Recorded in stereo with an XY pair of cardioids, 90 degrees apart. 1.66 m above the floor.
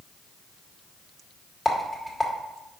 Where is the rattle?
15° left, 2 m.